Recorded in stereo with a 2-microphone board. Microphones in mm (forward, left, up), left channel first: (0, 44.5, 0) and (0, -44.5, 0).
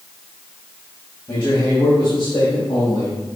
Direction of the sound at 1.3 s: 65° left (ahead or behind).